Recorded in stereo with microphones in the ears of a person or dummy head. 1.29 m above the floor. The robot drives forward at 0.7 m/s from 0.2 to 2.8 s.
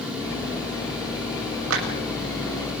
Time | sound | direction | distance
1.7 | a clap | 85° right | 7.5 m